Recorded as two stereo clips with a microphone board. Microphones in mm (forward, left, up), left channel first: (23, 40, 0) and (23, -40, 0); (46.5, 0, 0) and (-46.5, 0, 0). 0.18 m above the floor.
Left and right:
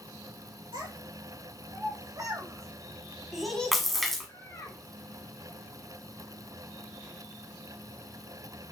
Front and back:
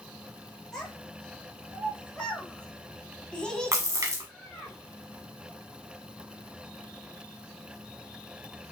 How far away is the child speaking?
About 2.5 m.